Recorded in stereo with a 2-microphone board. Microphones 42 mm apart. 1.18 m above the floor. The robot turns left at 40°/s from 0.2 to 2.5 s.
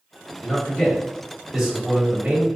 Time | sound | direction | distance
0.4 | a man speaking | 45° left | 1.6 m